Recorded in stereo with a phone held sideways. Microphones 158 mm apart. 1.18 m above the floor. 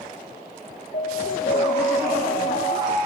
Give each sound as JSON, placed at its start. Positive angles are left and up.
{"t": 0.9, "sound": "an alarm", "side_deg": 70, "distance_m": 2.5}